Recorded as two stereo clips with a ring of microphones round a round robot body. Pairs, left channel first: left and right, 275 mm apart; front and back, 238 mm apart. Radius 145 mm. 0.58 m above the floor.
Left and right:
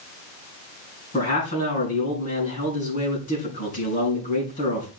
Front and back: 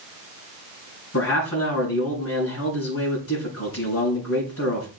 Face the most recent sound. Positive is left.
turn(degrees=25)